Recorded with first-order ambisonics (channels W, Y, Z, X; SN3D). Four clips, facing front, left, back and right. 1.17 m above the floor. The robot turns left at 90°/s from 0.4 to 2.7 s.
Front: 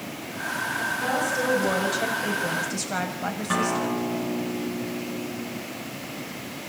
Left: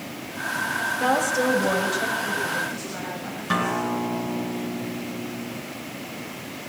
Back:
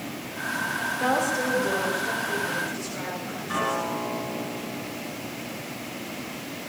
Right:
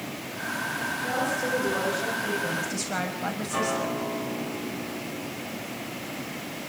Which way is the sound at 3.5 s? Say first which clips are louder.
Left 5 dB, front 1 dB; 65° left.